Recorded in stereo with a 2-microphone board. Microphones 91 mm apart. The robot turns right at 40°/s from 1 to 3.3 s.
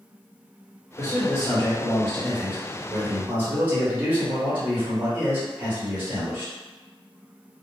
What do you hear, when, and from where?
1.0 s a man speaking: 120° left, 1.6 m; by 6.5 s 150° right, 1.6 m